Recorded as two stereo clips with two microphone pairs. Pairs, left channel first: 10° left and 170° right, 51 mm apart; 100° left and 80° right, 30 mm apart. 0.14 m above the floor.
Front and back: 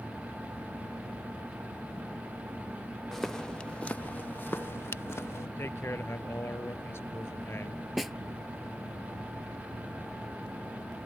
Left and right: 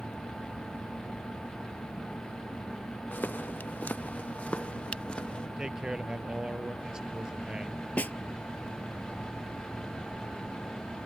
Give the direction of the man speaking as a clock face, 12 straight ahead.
1 o'clock.